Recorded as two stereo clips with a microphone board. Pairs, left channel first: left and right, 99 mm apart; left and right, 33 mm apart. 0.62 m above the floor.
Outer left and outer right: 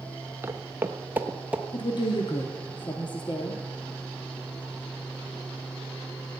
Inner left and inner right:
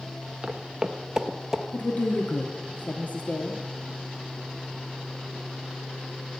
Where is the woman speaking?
45° left (ahead or behind), 1.0 m.